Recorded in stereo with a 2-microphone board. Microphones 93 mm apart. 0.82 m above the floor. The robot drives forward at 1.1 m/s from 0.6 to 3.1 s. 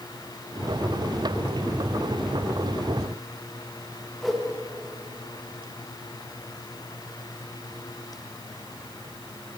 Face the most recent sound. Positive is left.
turn(degrees=0)  # may be behind; listen again after turning